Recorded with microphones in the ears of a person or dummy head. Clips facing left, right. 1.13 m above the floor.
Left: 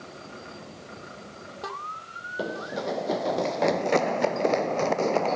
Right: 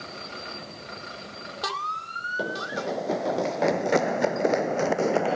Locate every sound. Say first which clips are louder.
2.4 s running footsteps: even; centre (ahead or behind); by 5.4 s 10° right (ahead or behind)